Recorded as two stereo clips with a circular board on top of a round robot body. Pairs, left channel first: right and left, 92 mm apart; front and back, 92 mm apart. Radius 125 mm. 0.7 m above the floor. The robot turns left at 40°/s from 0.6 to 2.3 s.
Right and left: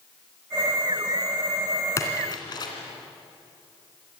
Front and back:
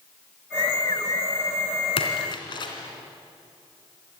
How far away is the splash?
About 2.5 m.